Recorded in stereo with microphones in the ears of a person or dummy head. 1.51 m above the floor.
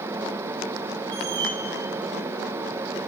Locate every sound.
1.1 s a squeak: 15° right (ahead or behind), 2.5 m